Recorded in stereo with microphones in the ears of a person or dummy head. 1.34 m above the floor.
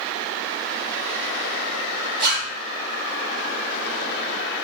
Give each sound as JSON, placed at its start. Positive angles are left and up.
{"t": 2.2, "sound": "a zipper", "side_deg": -50, "distance_m": 1.6}